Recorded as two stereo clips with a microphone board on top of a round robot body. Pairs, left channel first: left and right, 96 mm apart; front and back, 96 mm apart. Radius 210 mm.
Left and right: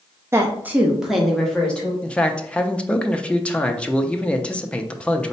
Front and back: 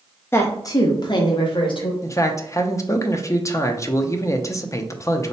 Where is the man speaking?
20° left, 0.7 m.